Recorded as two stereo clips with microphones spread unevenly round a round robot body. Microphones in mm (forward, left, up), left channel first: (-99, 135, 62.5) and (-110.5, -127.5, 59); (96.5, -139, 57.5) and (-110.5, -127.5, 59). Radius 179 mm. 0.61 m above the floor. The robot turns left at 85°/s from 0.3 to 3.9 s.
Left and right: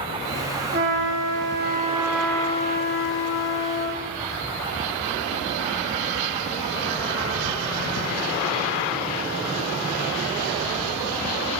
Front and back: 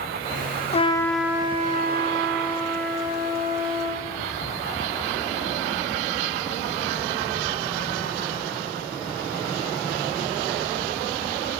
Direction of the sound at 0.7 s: 55° right.